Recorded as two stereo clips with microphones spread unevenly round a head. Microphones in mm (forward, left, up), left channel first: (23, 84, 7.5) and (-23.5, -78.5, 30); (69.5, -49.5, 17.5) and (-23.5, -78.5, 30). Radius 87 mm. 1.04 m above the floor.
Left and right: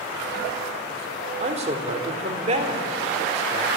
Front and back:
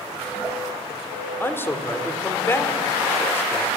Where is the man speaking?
50° right, 3 m.